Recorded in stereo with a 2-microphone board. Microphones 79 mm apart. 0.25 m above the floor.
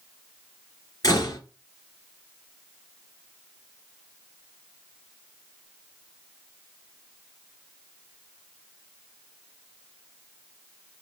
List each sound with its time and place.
1.0 s a door slam: 45° left (ahead or behind), 3 m